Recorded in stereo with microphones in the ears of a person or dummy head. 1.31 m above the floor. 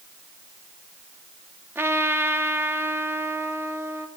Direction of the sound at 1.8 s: 10° right (ahead or behind).